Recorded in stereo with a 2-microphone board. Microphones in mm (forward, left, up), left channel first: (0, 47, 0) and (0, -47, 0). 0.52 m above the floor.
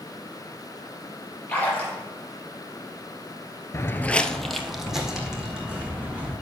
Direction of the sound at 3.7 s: 30° left (ahead or behind).